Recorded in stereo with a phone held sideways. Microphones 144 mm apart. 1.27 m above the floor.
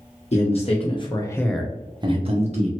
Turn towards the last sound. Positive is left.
turn(degrees=-50)  # may be behind; listen again after turning